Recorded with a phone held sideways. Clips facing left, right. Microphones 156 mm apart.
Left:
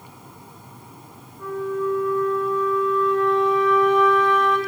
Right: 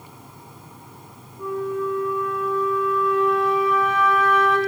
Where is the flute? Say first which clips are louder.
Even; 5° right (ahead or behind), 2.5 m.